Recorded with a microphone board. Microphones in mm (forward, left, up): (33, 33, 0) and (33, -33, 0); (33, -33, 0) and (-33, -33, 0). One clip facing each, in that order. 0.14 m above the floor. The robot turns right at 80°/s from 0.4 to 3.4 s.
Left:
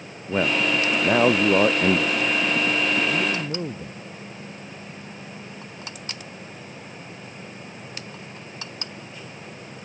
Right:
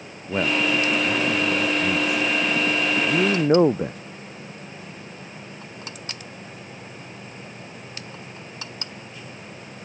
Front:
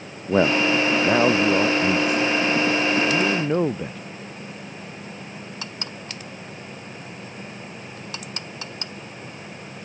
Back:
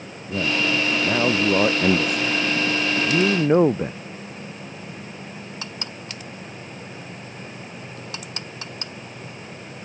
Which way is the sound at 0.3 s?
5° left.